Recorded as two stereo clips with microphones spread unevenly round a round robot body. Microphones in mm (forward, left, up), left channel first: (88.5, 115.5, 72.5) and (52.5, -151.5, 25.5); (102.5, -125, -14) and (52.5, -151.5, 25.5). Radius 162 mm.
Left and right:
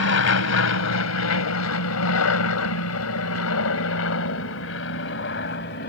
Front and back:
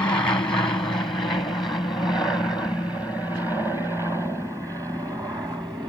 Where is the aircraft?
65° left; by 5.9 s 135° left.